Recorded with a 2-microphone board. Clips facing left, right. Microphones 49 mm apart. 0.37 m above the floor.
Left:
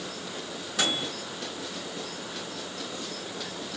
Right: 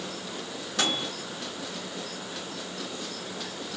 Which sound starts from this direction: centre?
A microwave, at 0.8 s.